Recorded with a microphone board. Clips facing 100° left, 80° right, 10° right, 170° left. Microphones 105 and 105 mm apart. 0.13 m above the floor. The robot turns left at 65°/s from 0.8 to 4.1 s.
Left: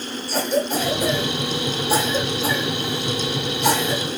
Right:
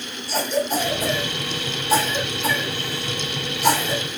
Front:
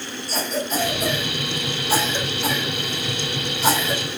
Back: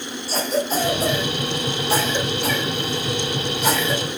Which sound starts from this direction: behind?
A cough, at 0.3 s.